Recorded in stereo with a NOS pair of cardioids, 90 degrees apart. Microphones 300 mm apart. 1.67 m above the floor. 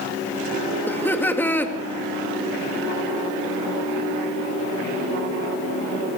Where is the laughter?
5° left, 2 m.